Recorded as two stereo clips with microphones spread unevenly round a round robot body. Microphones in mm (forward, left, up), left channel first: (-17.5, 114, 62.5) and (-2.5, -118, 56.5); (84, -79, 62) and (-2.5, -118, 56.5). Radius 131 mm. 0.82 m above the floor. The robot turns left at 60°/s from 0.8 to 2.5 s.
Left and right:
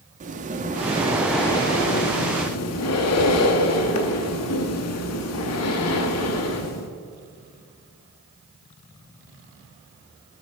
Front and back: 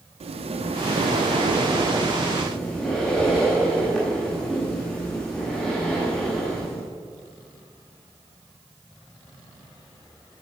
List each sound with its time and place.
0.2 s breathing: 145° right, 0.7 m; by 6.9 s 110° left, 0.7 m